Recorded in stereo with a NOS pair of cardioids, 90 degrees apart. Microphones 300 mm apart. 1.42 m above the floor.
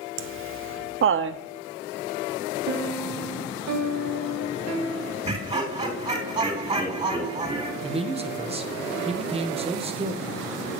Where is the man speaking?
20° right, 1.2 m.